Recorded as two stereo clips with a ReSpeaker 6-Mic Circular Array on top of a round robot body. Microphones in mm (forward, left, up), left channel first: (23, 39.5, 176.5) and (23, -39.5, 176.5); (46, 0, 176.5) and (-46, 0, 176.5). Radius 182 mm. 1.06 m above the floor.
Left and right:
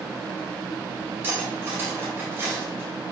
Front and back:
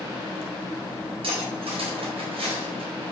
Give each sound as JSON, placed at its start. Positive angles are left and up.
{"t": 1.2, "sound": "cutlery clinking", "azimuth_deg": -155, "distance_m": 3.5}